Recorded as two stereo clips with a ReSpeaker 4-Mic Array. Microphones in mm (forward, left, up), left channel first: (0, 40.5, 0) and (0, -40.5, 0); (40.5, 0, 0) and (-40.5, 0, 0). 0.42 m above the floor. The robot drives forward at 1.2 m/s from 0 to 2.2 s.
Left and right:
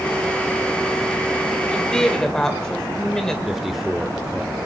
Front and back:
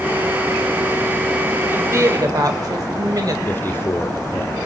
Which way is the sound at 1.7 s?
160° left.